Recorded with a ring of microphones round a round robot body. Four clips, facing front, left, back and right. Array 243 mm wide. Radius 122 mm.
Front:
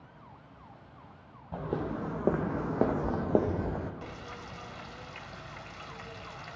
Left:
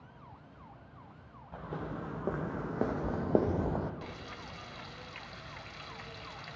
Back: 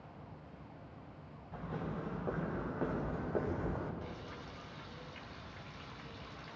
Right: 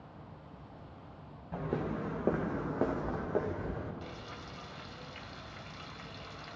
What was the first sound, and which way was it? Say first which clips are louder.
Footsteps: right 5 dB, front 8 dB; 30° right.